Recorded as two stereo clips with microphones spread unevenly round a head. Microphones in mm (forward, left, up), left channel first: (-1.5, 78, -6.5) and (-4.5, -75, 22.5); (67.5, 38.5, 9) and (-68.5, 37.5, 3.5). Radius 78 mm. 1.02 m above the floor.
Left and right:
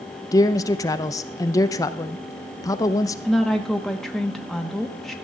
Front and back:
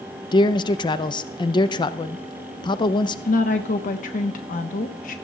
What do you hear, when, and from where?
0.3 s a man speaking: 45° left, 0.6 m
3.2 s a woman speaking: 10° left, 1.1 m